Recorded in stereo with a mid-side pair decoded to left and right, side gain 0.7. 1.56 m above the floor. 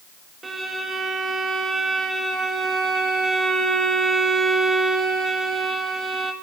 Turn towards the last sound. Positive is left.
turn(degrees=-20)